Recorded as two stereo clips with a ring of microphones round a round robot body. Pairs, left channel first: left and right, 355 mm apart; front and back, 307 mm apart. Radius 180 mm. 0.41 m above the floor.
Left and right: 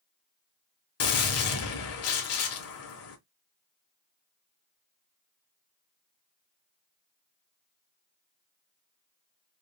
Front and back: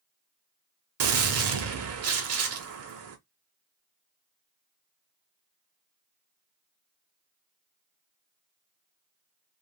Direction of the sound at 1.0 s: 140° left.